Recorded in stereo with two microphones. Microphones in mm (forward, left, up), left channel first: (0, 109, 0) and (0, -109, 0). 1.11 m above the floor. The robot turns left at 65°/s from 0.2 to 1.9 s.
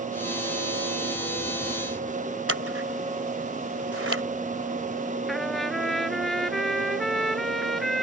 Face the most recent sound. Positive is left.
turn(degrees=0)  # may be behind; listen again after turning